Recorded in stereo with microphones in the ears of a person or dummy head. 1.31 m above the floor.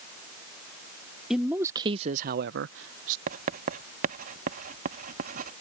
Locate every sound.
1.3 s a man speaking: 5° left (ahead or behind); by 3.2 s 85° right
3.3 s writing: 55° right (ahead or behind)